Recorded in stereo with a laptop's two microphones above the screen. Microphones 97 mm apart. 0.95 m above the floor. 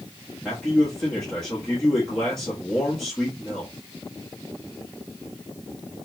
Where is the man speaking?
5° left (ahead or behind), 1.4 m.